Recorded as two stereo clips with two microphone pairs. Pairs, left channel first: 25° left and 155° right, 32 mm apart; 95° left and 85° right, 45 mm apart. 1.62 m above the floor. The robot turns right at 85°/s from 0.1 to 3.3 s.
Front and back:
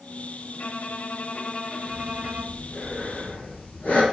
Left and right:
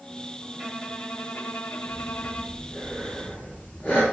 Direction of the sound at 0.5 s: Straight ahead.